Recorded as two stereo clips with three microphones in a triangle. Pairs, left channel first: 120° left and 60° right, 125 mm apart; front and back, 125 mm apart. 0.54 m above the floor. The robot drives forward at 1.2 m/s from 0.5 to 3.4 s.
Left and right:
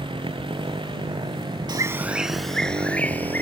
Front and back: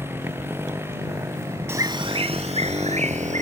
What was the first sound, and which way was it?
A motorcycle, 110° right.